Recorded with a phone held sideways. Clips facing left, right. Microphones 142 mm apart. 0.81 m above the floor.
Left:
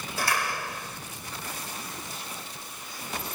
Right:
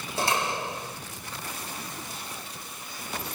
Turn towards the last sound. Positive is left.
turn(degrees=-25)  # may be behind; listen again after turning